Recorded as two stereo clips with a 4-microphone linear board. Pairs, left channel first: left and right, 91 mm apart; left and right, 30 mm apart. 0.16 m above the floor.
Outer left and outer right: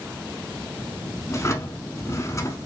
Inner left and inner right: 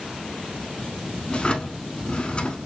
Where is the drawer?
35° left (ahead or behind), 0.8 m.